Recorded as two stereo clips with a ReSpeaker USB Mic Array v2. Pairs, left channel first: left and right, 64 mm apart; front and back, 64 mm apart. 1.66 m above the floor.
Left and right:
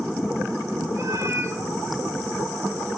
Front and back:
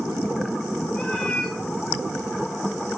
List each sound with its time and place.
0.9 s a cat meowing: 70° right, 2.5 m